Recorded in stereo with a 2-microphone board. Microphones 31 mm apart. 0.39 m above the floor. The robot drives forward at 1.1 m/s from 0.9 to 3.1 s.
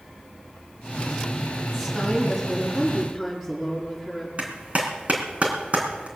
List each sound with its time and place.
1.7 s a woman speaking: centre (ahead or behind), 4.5 m
4.4 s a clap: 40° right (ahead or behind), 3 m